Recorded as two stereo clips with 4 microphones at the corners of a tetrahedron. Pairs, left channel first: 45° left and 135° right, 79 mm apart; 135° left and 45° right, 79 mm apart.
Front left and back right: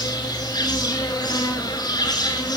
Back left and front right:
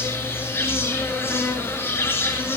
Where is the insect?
75° left, 6.5 m.